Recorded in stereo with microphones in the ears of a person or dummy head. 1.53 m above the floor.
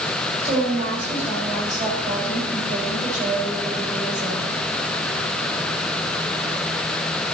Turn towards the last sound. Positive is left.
turn(degrees=-40)  # may be behind; listen again after turning